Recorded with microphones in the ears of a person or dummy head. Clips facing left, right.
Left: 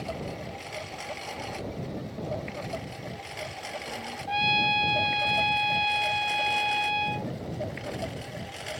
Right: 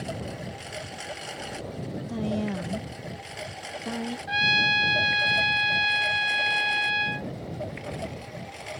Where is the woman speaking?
75° right (ahead or behind).